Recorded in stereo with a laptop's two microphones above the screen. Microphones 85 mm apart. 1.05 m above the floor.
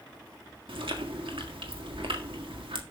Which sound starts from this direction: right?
Chewing, at 0.7 s.